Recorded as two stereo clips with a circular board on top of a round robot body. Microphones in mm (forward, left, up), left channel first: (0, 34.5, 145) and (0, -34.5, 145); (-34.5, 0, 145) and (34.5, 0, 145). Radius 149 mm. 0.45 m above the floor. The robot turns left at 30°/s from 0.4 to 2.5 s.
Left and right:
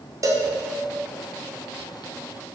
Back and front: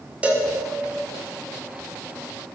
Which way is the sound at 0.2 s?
70° right.